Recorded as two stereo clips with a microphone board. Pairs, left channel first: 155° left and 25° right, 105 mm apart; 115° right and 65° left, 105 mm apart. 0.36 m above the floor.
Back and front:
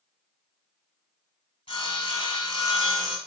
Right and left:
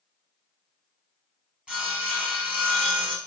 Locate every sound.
1.7 s sawing: 145° left, 1.2 m